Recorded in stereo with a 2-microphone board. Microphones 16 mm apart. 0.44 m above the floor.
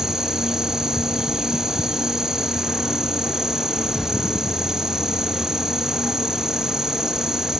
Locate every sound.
0.0 s an insect: 35° right (ahead or behind), 0.8 m